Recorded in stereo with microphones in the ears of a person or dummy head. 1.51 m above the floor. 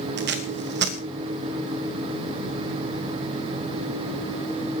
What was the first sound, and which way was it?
Tape being pulled, 65° right (ahead or behind).